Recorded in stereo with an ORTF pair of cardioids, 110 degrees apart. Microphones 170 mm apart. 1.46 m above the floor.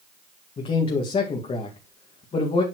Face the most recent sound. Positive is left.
turn(degrees=35)